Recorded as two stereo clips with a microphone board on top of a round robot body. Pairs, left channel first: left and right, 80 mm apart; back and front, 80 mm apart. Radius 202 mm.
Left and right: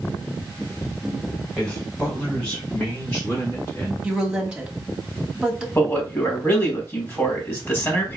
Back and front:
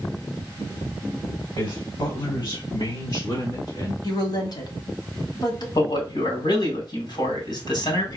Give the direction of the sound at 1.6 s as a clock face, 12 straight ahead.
6 o'clock.